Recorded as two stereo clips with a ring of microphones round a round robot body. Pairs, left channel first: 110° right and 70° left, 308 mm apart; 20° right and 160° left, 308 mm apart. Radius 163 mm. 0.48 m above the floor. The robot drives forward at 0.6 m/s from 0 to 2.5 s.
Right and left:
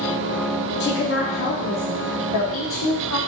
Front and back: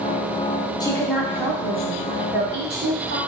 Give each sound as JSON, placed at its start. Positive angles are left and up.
{"t": 0.8, "sound": "a woman speaking", "azimuth_deg": -90, "distance_m": 1.0}